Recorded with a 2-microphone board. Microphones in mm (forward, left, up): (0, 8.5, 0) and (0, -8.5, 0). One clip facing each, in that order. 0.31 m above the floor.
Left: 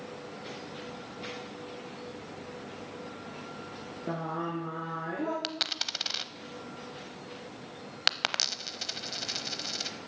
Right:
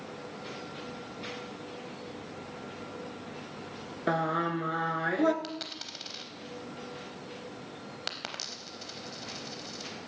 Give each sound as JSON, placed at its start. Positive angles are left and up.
{"t": 4.1, "sound": "singing", "side_deg": -65, "distance_m": 1.4}
{"t": 5.4, "sound": "a dropped coin", "side_deg": 40, "distance_m": 0.6}